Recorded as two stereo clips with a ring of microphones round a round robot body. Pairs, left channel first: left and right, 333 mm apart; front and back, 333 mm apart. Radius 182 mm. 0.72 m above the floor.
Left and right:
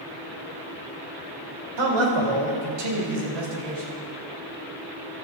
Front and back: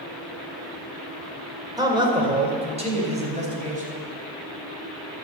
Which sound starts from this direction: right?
A man speaking, at 1.8 s.